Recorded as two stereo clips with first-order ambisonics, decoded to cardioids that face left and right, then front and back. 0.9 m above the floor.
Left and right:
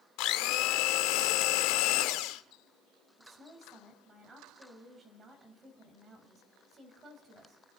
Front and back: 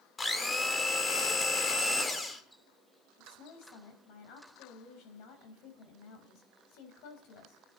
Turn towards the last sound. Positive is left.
turn(degrees=-20)